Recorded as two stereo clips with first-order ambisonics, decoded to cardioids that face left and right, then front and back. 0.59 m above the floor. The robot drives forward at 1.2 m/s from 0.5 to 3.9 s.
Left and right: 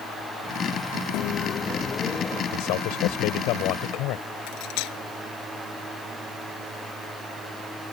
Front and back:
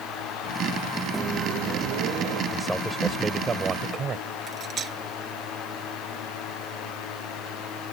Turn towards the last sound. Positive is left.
turn(degrees=115)